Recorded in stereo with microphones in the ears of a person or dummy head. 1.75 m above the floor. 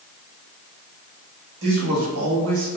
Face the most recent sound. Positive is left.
turn(degrees=-55)  # may be behind; listen again after turning